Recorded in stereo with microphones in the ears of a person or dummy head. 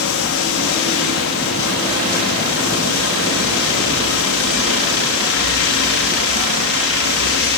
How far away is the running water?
About 2 m.